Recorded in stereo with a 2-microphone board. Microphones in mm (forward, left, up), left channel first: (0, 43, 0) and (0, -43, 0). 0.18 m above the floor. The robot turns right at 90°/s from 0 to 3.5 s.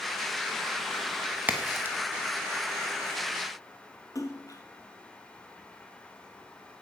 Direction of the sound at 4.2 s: 40° left (ahead or behind).